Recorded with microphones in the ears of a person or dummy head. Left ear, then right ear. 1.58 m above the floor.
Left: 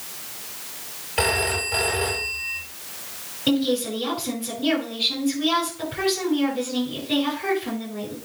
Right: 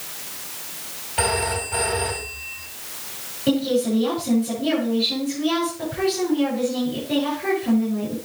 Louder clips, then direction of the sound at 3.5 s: Right 2 dB; 25° left (ahead or behind).